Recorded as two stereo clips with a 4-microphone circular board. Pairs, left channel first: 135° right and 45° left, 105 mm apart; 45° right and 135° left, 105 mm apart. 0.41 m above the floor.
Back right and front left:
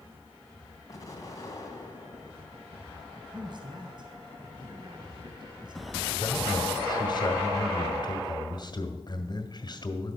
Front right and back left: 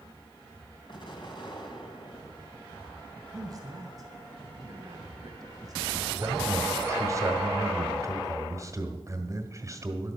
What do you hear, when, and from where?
0.9 s an explosion: 80° right, 2.5 m
3.3 s a man speaking: 85° left, 2 m
6.1 s a man speaking: 170° right, 1.5 m